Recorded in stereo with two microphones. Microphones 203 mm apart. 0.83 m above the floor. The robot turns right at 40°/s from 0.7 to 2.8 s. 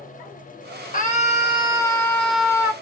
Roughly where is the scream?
Behind left.